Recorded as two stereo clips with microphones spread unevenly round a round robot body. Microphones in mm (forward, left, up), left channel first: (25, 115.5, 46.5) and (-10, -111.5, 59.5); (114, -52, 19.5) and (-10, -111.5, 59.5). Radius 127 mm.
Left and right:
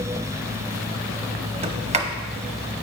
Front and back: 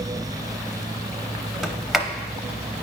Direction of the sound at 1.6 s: 45° right.